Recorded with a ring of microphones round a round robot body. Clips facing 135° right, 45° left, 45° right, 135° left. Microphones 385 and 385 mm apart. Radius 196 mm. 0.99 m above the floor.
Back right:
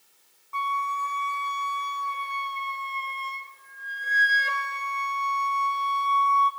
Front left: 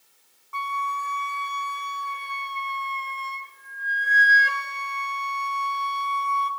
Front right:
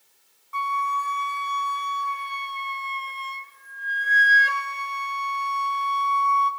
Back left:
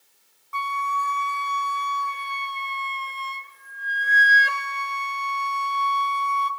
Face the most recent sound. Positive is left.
turn(degrees=105)